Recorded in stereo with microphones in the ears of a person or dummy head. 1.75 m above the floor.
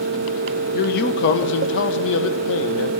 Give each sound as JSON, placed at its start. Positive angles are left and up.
{"t": 0.7, "sound": "a man speaking", "side_deg": 70, "distance_m": 1.7}